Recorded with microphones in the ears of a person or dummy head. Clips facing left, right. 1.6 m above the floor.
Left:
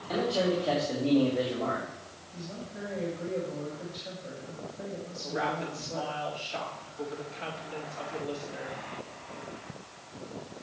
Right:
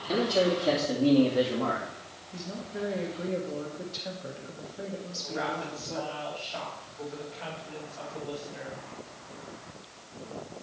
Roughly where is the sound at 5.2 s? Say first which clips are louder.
Left 2 dB; left.